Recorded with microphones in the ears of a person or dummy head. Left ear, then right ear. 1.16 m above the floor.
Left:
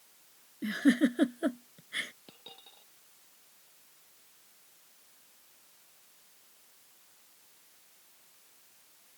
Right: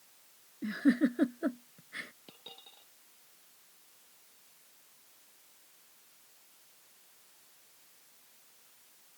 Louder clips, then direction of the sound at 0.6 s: Left 2 dB; 20° left (ahead or behind).